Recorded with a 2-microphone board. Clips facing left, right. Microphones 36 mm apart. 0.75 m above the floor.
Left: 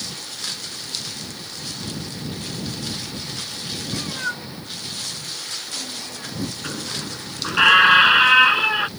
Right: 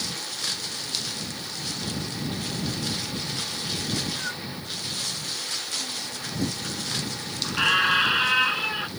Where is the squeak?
35° left (ahead or behind).